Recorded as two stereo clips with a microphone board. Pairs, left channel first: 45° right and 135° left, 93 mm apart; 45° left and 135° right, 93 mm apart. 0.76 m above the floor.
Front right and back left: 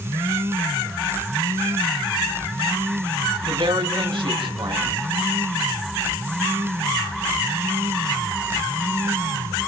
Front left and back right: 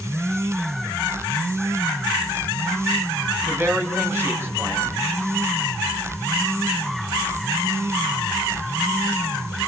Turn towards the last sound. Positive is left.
turn(degrees=160)